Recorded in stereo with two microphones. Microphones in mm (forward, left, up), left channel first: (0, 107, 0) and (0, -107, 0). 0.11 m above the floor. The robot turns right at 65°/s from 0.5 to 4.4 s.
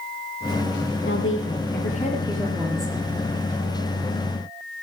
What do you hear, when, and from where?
1.1 s a woman speaking: 80° left, 3.5 m; by 3.0 s 155° right, 3.5 m